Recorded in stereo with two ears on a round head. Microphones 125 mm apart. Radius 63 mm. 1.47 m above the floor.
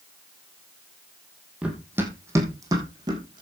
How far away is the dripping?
I don't hear dripping.